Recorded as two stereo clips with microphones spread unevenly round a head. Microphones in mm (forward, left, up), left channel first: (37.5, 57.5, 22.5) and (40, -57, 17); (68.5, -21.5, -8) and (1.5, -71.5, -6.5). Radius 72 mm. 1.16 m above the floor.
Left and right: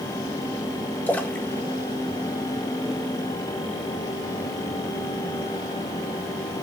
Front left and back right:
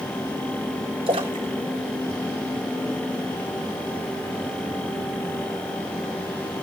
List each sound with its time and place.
1.1 s a splash: 170° left, 1.4 m